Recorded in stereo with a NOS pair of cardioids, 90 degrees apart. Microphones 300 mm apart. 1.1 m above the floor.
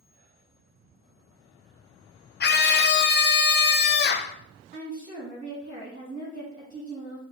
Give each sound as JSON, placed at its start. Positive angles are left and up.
{"t": 2.4, "sound": "a scream", "azimuth_deg": 35, "distance_m": 0.6}
{"t": 4.7, "sound": "a woman speaking", "azimuth_deg": -25, "distance_m": 1.6}